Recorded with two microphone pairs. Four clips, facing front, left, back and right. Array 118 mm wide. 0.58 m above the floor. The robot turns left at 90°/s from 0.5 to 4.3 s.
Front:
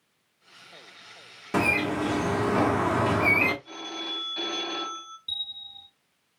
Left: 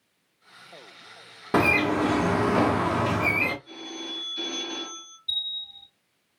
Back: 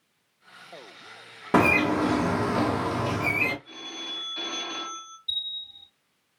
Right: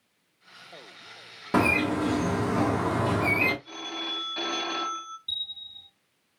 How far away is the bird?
About 0.9 m.